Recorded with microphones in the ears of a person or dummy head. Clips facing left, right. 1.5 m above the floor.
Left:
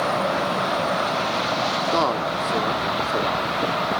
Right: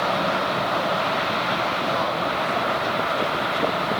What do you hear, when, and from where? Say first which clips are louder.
1.9 s a man speaking: left 2 dB; 60° left (ahead or behind), 1.2 m